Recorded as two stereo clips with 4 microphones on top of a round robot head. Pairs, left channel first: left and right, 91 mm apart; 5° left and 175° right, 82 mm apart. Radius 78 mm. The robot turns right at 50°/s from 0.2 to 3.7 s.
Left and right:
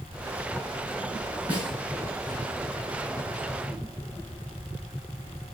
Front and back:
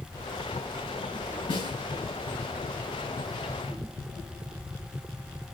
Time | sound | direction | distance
1.5 | a snare drum | 15° right | 7 m